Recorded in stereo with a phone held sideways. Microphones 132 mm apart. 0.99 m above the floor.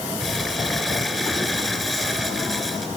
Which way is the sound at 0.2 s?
Centre (ahead or behind).